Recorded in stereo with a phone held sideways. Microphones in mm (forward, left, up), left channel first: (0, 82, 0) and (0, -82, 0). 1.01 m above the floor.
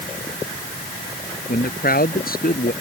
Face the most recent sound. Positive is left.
turn(degrees=60)  # may be behind; listen again after turning